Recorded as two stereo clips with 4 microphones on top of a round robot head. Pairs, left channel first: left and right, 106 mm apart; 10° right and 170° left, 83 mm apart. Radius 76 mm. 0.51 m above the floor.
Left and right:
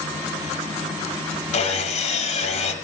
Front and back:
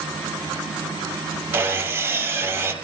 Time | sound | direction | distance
1.5 | sawing | 105° left | 5.5 m